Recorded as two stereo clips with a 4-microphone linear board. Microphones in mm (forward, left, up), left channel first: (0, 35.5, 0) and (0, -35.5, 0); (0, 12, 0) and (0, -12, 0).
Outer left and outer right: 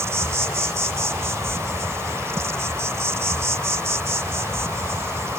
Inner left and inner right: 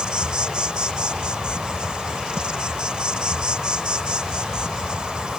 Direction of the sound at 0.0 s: 40° right (ahead or behind).